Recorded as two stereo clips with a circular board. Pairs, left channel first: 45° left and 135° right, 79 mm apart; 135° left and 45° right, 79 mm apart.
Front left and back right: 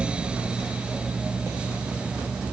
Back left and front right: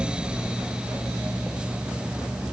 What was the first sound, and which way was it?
Only background noise.